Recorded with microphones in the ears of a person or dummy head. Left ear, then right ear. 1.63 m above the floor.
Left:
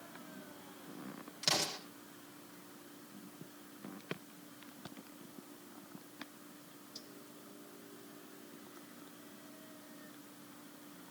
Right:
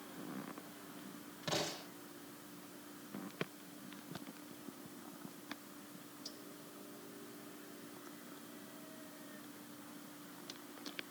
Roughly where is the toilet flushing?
I don't hear a toilet flushing.